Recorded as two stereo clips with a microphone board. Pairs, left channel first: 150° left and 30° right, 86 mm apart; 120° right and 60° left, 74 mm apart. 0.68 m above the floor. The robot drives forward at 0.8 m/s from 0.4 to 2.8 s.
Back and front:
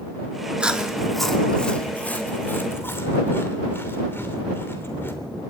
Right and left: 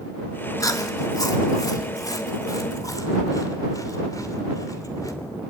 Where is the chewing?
105° right, 1.6 m; by 5.1 s 150° right, 2.5 m.